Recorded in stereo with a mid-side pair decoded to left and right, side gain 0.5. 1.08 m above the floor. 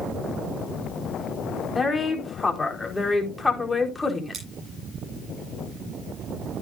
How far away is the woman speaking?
About 4 m.